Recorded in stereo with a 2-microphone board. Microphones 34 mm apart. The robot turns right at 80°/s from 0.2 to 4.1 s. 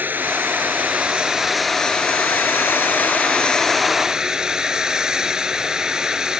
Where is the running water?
110° right; by 6.4 s 160° right.